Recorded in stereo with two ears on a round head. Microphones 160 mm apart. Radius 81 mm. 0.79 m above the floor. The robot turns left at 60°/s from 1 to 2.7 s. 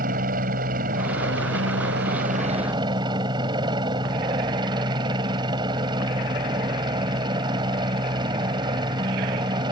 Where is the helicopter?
50° right; by 9.7 s 155° right.